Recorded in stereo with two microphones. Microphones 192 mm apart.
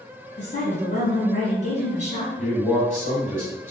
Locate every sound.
0.4 s a woman speaking: 35° left (ahead or behind), 1.4 m
2.4 s a man speaking: 40° left (ahead or behind), 1.8 m